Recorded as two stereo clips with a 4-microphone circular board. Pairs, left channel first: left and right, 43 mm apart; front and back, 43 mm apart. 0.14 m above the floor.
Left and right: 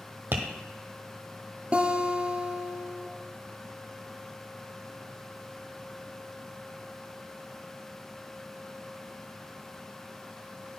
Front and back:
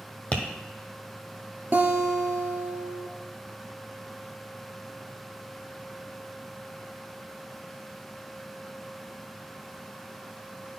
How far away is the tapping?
About 1.3 m.